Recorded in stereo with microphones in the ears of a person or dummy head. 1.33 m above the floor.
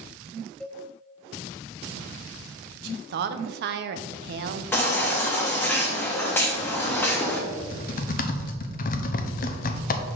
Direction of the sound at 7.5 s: 45° left (ahead or behind).